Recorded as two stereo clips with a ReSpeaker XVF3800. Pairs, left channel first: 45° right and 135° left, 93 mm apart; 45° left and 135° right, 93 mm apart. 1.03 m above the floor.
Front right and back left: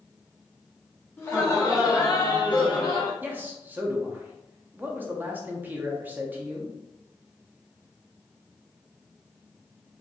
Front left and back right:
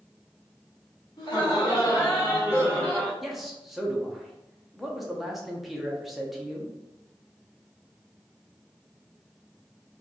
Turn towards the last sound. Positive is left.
turn(degrees=135)